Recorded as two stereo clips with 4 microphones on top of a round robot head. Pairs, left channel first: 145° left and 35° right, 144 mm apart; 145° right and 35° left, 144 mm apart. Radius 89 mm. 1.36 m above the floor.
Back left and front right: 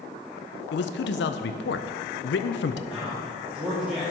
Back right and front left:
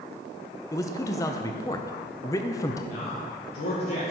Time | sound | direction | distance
0.7 | a man speaking | 145° left | 0.5 m
2.9 | a man speaking | 120° right | 1.6 m